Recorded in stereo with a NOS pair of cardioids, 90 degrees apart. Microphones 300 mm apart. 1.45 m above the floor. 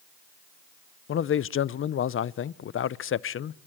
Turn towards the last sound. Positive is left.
turn(degrees=45)